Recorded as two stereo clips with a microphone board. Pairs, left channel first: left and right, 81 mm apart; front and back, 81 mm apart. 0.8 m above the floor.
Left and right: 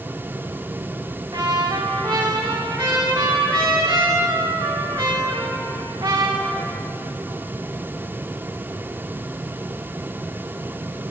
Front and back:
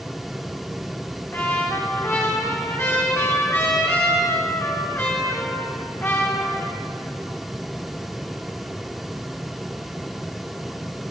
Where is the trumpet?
60° right, 2.5 m.